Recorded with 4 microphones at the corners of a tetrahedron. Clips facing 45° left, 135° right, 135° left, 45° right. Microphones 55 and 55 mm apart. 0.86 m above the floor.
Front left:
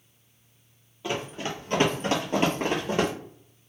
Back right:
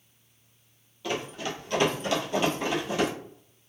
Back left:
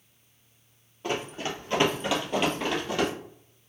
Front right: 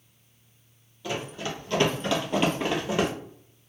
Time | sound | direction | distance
1.0 | running footsteps | 105° left | 1.3 m